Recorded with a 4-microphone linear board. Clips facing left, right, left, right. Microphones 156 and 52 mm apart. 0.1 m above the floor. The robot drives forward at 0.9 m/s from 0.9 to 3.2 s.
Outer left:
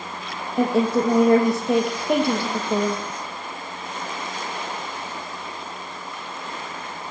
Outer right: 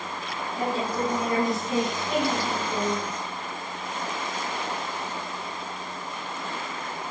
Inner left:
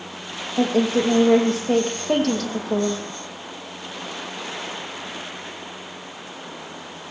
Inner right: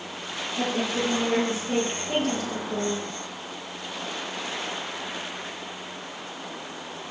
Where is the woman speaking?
70° left (ahead or behind), 4 m; by 3.0 s 60° left (ahead or behind), 4.5 m.